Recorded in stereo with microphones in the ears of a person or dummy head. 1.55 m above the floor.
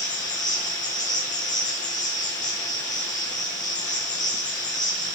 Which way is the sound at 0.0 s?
20° left (ahead or behind).